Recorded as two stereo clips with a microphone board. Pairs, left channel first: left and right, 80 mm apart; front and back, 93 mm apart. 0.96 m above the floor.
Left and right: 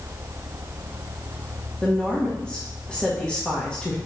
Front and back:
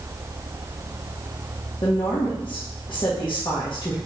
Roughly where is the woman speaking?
Ahead.